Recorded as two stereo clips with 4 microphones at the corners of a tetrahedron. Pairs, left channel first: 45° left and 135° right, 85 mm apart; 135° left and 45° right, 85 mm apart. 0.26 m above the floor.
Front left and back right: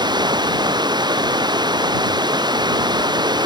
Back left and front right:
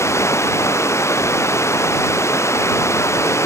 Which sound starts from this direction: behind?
Running water, at 0.0 s.